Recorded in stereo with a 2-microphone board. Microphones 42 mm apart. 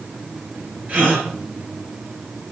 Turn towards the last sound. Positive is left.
turn(degrees=-35)  # may be behind; listen again after turning